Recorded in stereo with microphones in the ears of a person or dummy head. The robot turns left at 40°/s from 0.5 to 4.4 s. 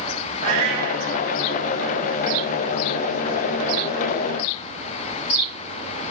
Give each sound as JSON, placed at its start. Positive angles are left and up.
{"t": 0.4, "sound": "a cat meowing", "side_deg": -55, "distance_m": 3.5}